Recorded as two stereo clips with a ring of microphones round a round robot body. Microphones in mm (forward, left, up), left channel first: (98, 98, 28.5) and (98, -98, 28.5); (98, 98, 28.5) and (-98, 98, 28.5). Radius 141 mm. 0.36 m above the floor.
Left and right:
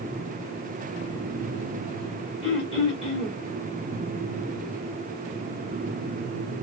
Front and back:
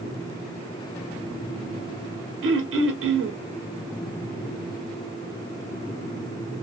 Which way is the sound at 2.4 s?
165° left.